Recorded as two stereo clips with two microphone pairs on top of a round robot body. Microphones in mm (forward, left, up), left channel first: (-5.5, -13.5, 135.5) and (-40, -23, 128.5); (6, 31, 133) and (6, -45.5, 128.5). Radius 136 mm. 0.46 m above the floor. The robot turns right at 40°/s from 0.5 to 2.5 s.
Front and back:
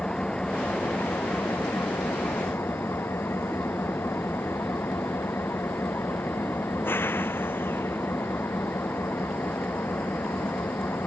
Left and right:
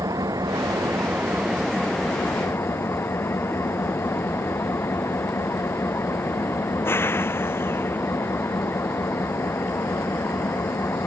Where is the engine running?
50° right; by 11.1 s 30° left.